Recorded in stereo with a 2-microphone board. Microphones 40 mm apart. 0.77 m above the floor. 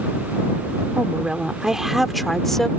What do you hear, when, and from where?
0.9 s a woman speaking: 30° right (ahead or behind); by 2.7 s 10° left (ahead or behind)